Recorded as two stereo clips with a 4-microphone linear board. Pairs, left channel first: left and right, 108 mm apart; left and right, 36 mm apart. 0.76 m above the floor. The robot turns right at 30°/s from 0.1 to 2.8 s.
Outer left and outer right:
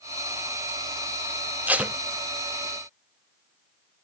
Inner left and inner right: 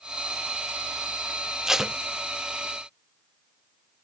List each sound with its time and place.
1.7 s tape being pulled: 15° right (ahead or behind), 0.6 m; by 1.9 s 10° right (ahead or behind), 0.6 m